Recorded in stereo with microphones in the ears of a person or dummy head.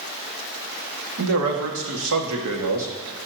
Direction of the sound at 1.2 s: 65° right (ahead or behind).